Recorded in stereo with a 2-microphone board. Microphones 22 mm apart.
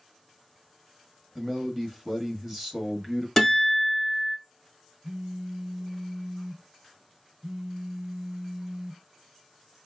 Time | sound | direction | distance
1.4 | a man speaking | 20° right (ahead or behind) | 1.0 m
3.4 | a guitar | 10° left (ahead or behind) | 1.4 m
5.0 | a phone buzzing | 65° right (ahead or behind) | 0.6 m